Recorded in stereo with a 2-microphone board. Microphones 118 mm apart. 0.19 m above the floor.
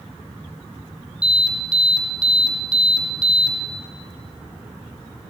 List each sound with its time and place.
1.2 s an alarm: 5° right (ahead or behind), 5 m